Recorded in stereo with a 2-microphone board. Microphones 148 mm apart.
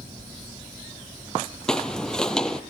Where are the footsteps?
5° left (ahead or behind), 1.3 m.